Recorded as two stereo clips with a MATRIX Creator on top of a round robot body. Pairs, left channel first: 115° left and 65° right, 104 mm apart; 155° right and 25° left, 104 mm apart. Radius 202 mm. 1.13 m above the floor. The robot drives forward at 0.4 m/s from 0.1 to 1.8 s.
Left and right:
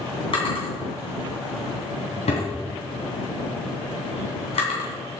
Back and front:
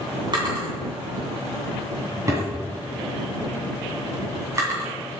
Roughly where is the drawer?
Left.